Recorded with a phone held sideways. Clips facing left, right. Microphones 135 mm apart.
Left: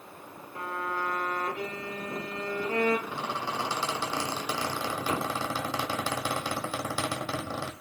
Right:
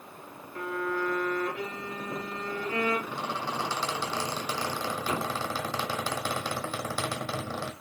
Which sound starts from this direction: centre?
A squeak, at 3.1 s.